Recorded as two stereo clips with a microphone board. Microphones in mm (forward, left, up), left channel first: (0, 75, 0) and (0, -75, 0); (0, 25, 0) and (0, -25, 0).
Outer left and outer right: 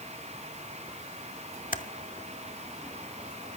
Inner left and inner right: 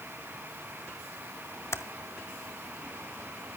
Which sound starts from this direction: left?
Typing on a keyboard, at 1.7 s.